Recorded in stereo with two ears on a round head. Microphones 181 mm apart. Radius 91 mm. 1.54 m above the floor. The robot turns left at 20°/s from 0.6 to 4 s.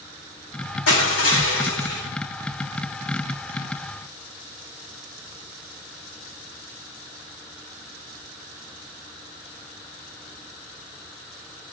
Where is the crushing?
75° left (ahead or behind), 5 m; by 2.0 s 55° left (ahead or behind), 5 m.